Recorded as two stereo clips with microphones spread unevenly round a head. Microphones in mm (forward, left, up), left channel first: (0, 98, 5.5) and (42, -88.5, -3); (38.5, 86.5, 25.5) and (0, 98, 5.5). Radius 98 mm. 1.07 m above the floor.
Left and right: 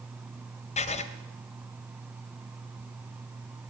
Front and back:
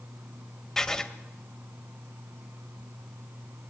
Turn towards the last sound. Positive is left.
turn(degrees=50)